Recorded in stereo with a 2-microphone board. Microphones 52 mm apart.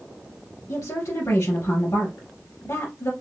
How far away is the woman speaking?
About 2 m.